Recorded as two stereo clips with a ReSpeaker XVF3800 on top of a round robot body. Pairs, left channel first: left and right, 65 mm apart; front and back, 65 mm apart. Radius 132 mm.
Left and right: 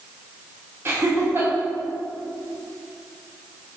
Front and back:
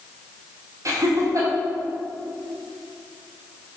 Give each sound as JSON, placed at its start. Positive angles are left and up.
{"t": 0.8, "sound": "laughter", "azimuth_deg": -145, "distance_m": 2.5}